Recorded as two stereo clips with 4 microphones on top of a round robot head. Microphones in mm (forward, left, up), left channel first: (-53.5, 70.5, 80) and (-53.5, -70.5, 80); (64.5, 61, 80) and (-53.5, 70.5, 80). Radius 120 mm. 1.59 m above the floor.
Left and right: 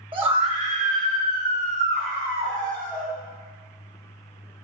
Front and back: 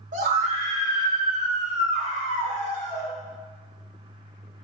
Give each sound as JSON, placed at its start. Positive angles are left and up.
{"t": 0.1, "sound": "a scream", "azimuth_deg": -145, "distance_m": 2.5}